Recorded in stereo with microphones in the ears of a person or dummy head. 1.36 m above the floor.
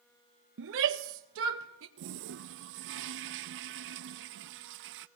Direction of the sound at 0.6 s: 70° right (ahead or behind).